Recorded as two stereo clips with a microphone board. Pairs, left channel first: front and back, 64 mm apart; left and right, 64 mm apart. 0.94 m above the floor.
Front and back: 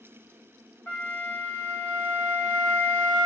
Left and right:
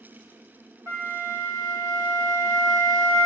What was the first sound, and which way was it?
A flute, 55° right.